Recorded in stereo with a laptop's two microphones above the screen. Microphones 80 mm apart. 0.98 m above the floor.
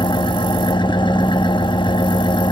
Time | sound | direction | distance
0.0 | an engine running | 65° left (ahead or behind) | 1.5 m